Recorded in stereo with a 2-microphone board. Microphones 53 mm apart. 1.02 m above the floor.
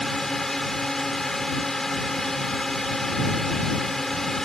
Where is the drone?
5° left (ahead or behind).